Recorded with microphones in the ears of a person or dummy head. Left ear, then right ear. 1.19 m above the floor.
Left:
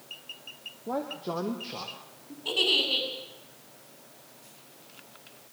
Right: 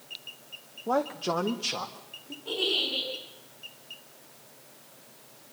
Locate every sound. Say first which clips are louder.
0.9 s a man speaking: right 5 dB; 40° right (ahead or behind), 0.8 m; by 2.4 s 80° right, 2.5 m
2.5 s a giggle: left 3 dB; 75° left (ahead or behind), 7.5 m